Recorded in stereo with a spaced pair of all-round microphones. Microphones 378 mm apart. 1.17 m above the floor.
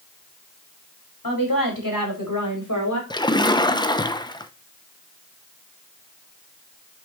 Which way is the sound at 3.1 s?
10° left (ahead or behind).